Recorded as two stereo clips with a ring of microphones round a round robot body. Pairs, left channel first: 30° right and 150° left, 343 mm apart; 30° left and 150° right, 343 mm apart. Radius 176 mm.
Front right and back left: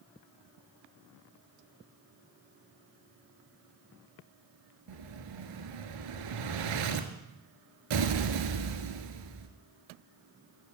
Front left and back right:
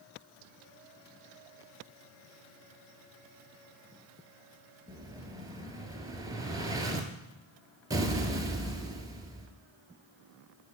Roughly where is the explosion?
Behind left.